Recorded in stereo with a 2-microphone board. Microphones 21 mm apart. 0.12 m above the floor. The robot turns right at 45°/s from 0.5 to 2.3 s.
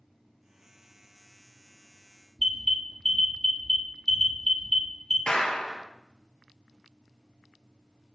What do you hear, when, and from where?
2.4 s an alarm: 10° left (ahead or behind), 2 m
5.3 s a clap: 55° left (ahead or behind), 1.6 m